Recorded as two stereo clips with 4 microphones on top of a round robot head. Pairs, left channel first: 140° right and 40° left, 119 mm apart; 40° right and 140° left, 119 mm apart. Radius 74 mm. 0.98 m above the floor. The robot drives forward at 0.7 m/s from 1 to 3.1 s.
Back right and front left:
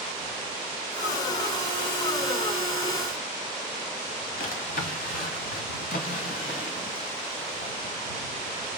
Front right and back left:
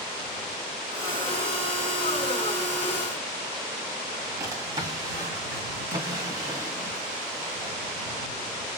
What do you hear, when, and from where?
4.4 s a drawer: 155° right, 1.8 m